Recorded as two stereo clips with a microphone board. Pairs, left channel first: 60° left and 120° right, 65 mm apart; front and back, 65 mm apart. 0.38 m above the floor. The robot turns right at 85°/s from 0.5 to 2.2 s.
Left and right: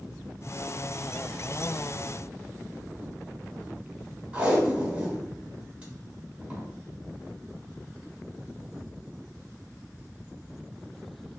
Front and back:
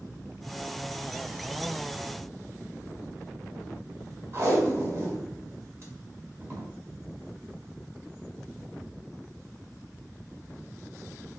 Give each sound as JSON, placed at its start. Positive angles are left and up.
{"t": 4.3, "sound": "tape being pulled", "azimuth_deg": 175, "distance_m": 1.2}